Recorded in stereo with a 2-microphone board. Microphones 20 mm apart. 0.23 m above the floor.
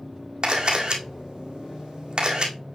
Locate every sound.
0.4 s a camera shutter: 50° right (ahead or behind), 2.0 m